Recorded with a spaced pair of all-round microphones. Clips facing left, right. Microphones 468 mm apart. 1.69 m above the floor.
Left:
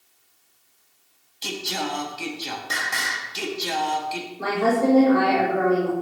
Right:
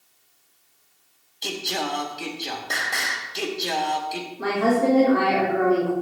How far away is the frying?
No frying in this recording.